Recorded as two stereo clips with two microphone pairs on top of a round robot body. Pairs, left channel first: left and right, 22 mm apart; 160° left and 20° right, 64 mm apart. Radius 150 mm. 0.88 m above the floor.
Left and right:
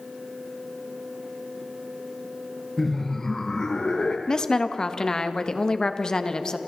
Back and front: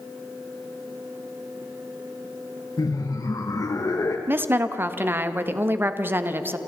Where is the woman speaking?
30° left, 1.4 m.